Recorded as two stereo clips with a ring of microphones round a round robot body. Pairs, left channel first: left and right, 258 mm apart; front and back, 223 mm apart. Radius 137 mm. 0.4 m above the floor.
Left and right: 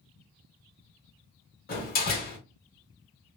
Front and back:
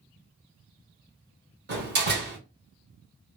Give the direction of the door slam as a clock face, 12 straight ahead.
7 o'clock.